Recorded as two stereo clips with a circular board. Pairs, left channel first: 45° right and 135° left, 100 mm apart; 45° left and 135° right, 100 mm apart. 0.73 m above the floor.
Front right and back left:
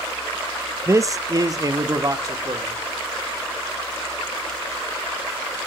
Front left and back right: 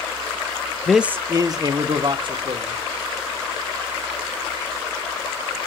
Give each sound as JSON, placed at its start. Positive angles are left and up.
{"t": 0.9, "sound": "a man speaking", "azimuth_deg": 120, "distance_m": 0.5}